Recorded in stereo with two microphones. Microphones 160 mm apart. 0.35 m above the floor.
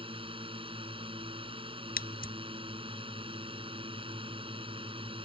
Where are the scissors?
65° left (ahead or behind).